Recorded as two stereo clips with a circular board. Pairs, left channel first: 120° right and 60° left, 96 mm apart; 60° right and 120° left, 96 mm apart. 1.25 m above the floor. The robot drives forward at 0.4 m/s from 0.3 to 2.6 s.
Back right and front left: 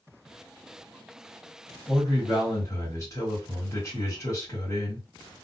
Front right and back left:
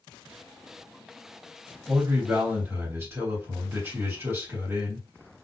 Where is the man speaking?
175° right, 1.3 m.